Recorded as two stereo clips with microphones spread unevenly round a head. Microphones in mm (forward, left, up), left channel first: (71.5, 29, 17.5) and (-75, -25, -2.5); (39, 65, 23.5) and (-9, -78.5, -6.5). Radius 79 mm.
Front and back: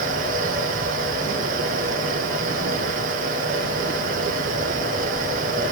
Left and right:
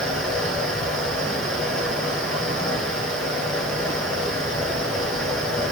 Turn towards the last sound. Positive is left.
turn(degrees=160)